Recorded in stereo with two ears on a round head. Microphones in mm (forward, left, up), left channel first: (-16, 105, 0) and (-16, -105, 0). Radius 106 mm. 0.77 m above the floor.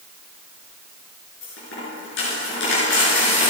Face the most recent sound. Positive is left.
turn(degrees=55)  # may be behind; listen again after turning